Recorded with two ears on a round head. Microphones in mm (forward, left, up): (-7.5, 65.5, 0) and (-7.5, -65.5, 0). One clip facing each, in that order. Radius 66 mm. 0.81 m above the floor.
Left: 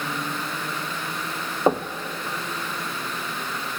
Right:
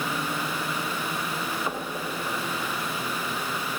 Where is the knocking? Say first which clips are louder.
Left 10 dB; 35° left (ahead or behind), 0.8 m.